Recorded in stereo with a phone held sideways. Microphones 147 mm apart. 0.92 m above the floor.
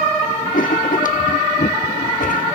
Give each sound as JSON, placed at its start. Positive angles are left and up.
{"t": 0.5, "sound": "writing", "side_deg": 70, "distance_m": 0.8}